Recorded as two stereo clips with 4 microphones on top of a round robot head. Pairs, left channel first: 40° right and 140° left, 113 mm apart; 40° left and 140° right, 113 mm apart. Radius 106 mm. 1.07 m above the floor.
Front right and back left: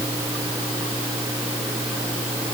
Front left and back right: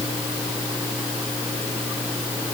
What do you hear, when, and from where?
Only background noise.